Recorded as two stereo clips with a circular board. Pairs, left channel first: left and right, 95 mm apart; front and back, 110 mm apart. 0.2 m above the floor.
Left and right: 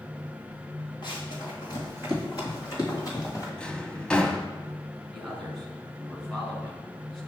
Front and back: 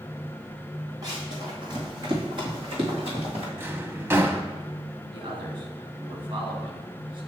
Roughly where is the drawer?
Behind left.